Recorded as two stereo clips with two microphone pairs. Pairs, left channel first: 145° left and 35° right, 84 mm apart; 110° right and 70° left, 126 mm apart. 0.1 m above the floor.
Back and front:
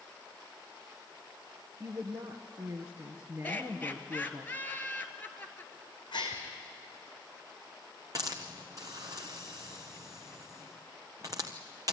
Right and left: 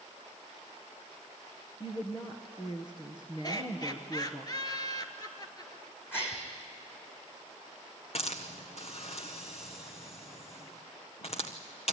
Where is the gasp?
175° left, 3 m.